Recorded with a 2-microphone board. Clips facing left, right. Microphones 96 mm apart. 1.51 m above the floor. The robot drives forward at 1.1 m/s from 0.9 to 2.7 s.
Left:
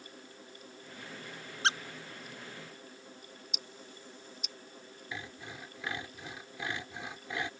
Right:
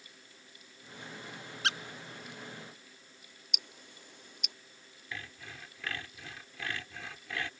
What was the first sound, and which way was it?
A squeak, 30° left (ahead or behind).